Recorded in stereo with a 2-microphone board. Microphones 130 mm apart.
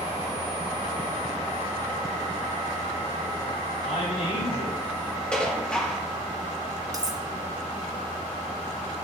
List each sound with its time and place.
3.8 s a man speaking: 85° left, 6.5 m
5.3 s dishes clattering: 5° left (ahead or behind), 1.7 m
6.9 s cutlery clinking: 25° right (ahead or behind), 1.0 m